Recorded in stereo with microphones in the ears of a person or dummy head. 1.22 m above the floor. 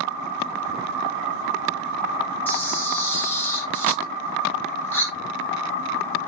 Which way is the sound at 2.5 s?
5° left (ahead or behind).